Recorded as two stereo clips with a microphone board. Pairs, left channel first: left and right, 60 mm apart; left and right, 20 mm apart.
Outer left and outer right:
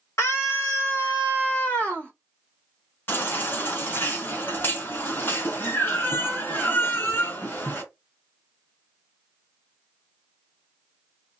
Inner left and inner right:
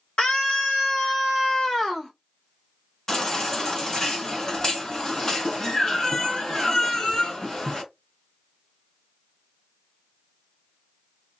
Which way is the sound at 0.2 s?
55° left (ahead or behind).